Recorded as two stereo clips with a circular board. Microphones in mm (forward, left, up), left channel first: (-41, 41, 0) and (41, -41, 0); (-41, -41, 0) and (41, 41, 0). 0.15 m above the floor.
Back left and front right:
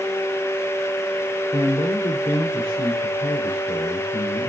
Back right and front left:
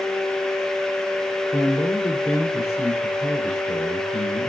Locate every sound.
1.5 s a man speaking: 165° left, 4.5 m